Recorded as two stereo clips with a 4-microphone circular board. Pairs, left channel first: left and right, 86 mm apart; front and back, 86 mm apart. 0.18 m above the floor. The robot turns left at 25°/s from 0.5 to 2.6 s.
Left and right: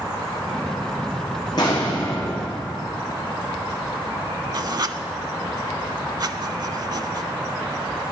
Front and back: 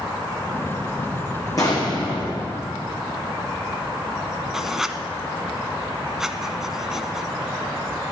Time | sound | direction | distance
1.6 | an explosion | 50° left | 4.5 m
4.5 | writing | 95° right | 0.6 m